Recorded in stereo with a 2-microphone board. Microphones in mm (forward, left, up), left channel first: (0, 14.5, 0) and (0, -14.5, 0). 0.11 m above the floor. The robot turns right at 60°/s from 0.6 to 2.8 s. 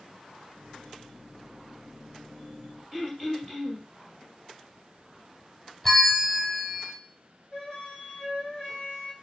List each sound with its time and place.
2.9 s throat clearing: 15° left (ahead or behind), 2.5 m
5.8 s a bell: 5° left (ahead or behind), 1.2 m
7.5 s a flute: 30° left (ahead or behind), 1.7 m